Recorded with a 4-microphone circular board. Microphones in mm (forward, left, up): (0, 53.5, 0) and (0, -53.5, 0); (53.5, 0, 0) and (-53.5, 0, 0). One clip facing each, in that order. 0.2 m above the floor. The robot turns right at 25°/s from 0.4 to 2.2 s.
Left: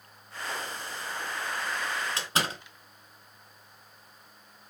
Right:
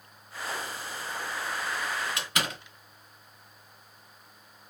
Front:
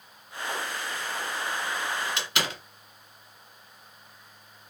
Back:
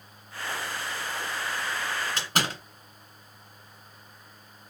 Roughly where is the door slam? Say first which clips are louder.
Left 2 dB, back 2 dB; behind left.